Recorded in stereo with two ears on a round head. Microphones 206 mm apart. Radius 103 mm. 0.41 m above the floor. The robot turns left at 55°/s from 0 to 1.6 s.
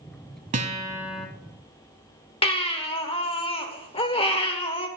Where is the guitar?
145° right, 1.2 m; by 1.3 s 175° left, 1.2 m.